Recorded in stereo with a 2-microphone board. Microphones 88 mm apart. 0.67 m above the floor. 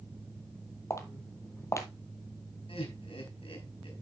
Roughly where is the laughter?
Left.